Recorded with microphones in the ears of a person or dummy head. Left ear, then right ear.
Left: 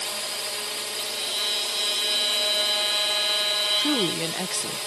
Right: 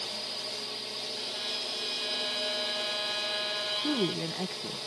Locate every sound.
0.0 s a drone: 50° left (ahead or behind)
1.1 s a violin: 35° left (ahead or behind)
3.8 s a woman speaking: 75° left (ahead or behind)